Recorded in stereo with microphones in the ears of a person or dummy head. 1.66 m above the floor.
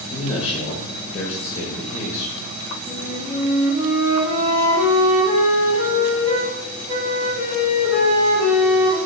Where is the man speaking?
30° left (ahead or behind), 0.7 m.